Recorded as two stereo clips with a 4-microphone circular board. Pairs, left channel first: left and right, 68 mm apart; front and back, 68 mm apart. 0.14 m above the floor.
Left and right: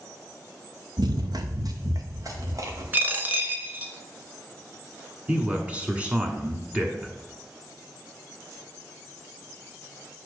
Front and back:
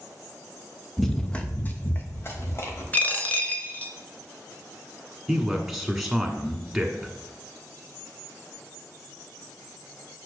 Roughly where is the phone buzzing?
I don't hear a phone buzzing.